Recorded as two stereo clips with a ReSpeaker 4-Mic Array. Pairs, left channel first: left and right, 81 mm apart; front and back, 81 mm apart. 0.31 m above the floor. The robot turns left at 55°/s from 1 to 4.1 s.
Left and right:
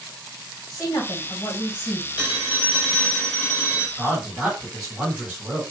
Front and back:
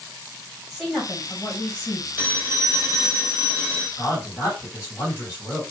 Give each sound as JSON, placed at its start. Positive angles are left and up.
{"t": 0.7, "sound": "a woman speaking", "azimuth_deg": 90, "distance_m": 1.7}
{"t": 2.2, "sound": "a phone ringing", "azimuth_deg": -135, "distance_m": 0.7}
{"t": 4.0, "sound": "a man speaking", "azimuth_deg": -20, "distance_m": 1.4}